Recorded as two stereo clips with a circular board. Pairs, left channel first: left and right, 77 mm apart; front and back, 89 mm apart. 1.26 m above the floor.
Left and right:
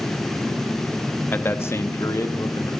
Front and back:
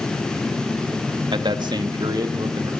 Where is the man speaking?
155° left, 1.5 m; by 2.7 s 135° left, 3 m.